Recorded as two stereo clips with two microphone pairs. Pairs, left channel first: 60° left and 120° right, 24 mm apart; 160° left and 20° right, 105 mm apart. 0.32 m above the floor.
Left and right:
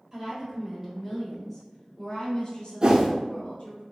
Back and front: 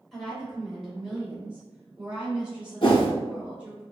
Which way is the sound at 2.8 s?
165° right.